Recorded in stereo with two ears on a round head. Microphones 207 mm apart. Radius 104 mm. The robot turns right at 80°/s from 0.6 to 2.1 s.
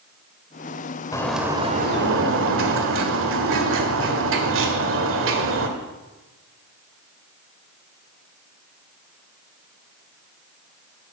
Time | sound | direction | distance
1.1 | a bird | 165° left | 1.8 m